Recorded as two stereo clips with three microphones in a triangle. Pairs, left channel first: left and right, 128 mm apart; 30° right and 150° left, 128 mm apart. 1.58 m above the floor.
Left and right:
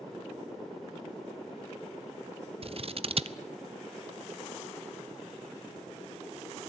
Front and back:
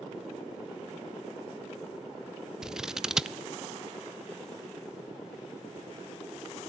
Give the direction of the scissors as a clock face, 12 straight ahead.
4 o'clock.